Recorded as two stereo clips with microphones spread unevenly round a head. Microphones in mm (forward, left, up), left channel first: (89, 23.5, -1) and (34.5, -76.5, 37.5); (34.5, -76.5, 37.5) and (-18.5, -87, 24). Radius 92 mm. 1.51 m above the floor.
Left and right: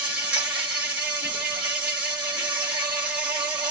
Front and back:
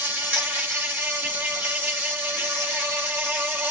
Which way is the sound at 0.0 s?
110° right.